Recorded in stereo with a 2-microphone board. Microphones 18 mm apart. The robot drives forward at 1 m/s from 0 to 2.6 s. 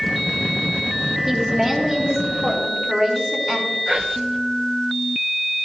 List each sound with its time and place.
1.3 s a woman speaking: 20° right (ahead or behind), 1.6 m; by 3.8 s 10° right (ahead or behind), 3 m
3.9 s whispering: 35° right (ahead or behind), 1.1 m